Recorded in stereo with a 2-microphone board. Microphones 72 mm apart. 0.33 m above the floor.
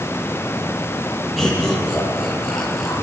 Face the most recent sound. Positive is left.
turn(degrees=5)  # may be behind; listen again after turning